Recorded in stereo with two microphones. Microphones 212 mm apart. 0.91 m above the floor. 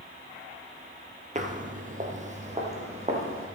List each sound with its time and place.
1.4 s footsteps: 35° right (ahead or behind), 1.0 m; by 3.5 s 30° right (ahead or behind), 3.5 m